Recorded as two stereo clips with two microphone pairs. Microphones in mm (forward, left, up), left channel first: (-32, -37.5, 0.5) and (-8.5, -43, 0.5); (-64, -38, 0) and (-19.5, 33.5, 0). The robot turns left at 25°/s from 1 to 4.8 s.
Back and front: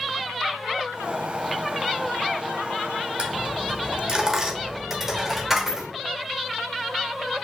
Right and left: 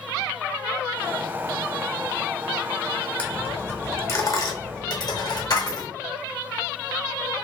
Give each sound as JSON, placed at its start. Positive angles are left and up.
{"t": 3.2, "sound": "a dropped coin", "azimuth_deg": -50, "distance_m": 0.7}